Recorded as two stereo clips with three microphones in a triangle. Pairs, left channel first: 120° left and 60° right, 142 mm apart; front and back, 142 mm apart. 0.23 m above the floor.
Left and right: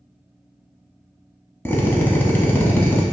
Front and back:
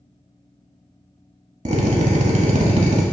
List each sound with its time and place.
1.6 s a drill: 170° right, 0.7 m